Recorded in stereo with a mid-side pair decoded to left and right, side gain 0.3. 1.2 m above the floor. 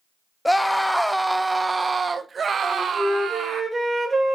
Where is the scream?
10° left, 1.3 m; by 3.6 s 80° right, 1.9 m.